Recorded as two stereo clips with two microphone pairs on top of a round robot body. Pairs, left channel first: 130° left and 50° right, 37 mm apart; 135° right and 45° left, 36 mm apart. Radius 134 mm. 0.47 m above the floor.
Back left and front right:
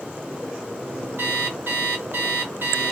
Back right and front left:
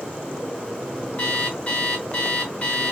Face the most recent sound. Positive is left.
turn(degrees=-75)